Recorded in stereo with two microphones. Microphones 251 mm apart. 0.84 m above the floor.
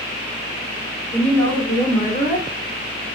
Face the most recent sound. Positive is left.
turn(degrees=45)  # may be behind; listen again after turning